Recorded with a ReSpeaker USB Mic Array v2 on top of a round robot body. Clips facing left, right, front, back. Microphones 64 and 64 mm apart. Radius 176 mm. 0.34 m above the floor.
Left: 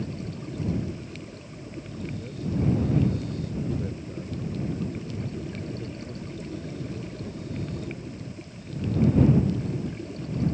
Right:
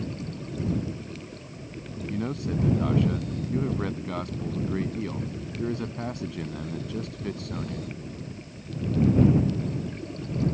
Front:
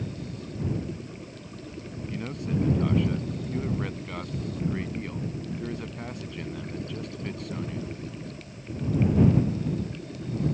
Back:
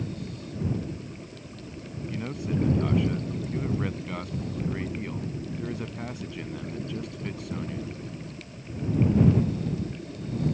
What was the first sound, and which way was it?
A man speaking, 90° right.